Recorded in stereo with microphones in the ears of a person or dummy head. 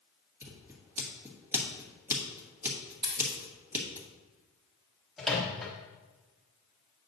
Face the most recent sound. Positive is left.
turn(degrees=5)  # may be behind; listen again after turning